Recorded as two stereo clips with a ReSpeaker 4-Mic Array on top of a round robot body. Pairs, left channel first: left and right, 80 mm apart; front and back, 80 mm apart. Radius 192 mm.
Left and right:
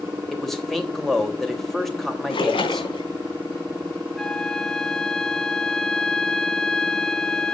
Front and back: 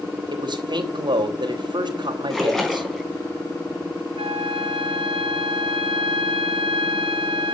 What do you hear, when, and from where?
0.3 s a man speaking: 175° left, 3.5 m
2.3 s a splash: 85° left, 3.5 m
4.2 s a flute: 175° left, 0.9 m